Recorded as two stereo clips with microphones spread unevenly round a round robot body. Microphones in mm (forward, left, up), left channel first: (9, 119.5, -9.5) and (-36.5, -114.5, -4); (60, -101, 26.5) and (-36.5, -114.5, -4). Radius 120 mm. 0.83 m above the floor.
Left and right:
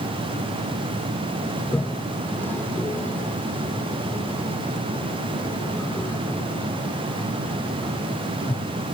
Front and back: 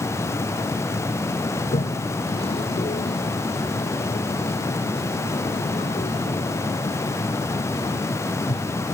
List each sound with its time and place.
1.6 s a toilet flushing: 5° right